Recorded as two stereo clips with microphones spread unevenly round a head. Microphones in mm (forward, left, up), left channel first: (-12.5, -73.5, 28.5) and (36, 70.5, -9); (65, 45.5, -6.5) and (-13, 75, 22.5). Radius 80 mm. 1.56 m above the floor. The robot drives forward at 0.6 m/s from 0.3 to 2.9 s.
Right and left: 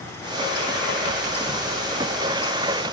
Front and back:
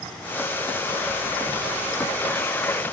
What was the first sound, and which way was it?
Only background noise.